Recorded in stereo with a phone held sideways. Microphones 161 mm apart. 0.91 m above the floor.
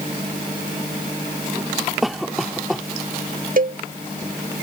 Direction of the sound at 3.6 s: 60° right (ahead or behind).